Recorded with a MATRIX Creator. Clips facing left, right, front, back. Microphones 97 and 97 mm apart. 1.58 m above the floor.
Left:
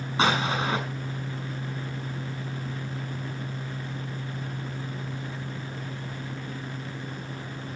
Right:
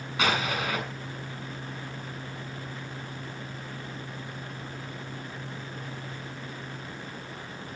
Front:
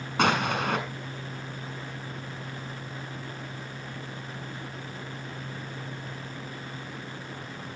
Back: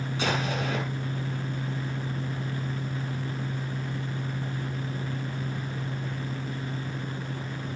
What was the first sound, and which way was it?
An explosion, 25° left.